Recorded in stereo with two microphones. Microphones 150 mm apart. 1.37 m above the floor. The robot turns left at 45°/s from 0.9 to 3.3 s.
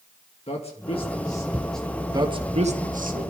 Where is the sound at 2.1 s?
25° right (ahead or behind), 1.7 m; by 3.3 s 75° right (ahead or behind), 1.7 m.